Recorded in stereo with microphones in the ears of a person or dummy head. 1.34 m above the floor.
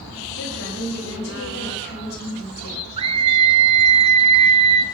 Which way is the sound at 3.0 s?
30° right (ahead or behind).